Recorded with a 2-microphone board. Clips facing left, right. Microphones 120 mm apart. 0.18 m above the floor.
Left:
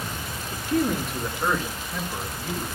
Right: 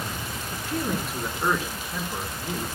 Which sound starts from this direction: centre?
A man speaking, at 0.5 s.